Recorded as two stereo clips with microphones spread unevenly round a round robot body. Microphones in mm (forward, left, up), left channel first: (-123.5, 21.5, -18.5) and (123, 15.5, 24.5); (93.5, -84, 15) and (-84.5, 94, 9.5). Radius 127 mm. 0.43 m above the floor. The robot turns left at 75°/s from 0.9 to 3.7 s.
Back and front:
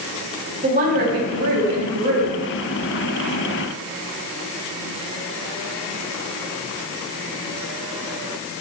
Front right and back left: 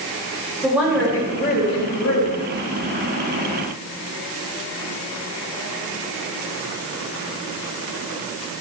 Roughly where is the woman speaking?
Ahead left.